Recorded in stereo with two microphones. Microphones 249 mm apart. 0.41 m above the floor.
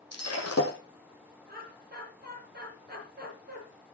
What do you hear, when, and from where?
0.1 s breaking glass: 80° left, 3.5 m
1.5 s laughter: 40° right (ahead or behind), 7 m